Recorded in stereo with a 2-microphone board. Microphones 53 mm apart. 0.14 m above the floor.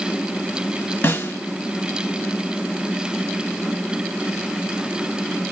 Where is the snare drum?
45° left (ahead or behind), 2.0 m.